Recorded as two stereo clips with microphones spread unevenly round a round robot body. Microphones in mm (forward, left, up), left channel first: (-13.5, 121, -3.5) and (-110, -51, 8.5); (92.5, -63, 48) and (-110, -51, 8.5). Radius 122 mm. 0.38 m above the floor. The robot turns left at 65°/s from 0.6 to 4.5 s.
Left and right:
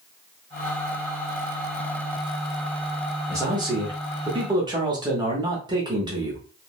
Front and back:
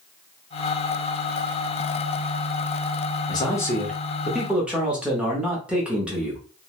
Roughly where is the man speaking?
Right.